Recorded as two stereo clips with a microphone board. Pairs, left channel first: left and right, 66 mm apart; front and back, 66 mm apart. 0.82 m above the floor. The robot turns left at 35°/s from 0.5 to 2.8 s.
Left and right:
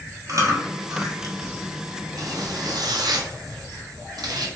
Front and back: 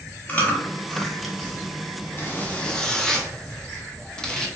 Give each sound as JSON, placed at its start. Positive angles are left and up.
{"t": 0.3, "sound": "chewing", "azimuth_deg": -65, "distance_m": 0.7}
{"t": 2.2, "sound": "a zipper", "azimuth_deg": -60, "distance_m": 0.5}